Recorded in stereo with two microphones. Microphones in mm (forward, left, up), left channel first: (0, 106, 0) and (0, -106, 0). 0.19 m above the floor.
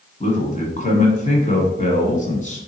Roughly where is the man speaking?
Left.